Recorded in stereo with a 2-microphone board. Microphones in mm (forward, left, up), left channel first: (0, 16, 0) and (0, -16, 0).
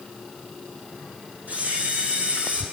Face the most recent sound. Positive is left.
turn(degrees=-55)  # may be behind; listen again after turning